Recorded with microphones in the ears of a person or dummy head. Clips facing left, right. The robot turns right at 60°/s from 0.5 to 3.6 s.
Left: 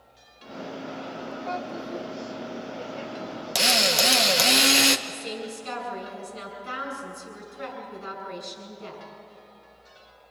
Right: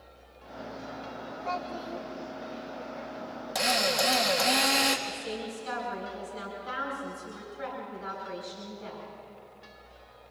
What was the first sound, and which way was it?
A child speaking, 90° right.